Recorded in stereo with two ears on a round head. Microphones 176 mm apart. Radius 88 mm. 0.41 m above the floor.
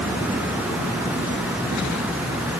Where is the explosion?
I don't hear an explosion.